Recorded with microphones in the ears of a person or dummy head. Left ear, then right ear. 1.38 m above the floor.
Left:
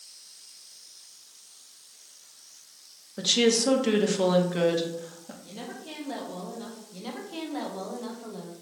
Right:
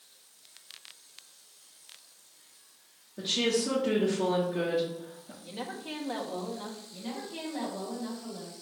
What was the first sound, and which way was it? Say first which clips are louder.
A woman speaking: left 5 dB; 55° left (ahead or behind).